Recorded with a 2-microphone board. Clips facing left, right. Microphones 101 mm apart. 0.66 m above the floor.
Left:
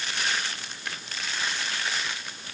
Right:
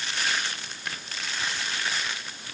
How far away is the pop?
I don't hear a pop.